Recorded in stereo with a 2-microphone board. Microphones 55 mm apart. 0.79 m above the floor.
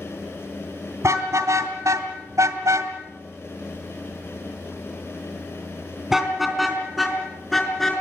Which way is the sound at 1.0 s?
70° right (ahead or behind).